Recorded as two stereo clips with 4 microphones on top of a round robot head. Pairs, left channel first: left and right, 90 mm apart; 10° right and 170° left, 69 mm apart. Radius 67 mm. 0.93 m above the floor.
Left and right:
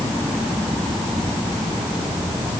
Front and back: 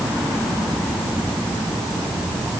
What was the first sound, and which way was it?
Only background noise.